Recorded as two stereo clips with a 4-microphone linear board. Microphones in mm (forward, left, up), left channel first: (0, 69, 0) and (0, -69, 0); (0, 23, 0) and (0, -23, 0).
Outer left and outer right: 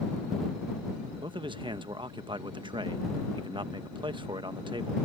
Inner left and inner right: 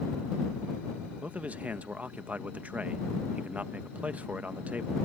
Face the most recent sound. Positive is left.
turn(degrees=-35)  # may be behind; listen again after turning